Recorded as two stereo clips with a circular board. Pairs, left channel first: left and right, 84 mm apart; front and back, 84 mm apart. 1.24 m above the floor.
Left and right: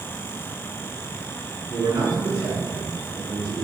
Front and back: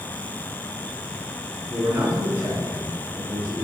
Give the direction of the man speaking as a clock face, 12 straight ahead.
4 o'clock.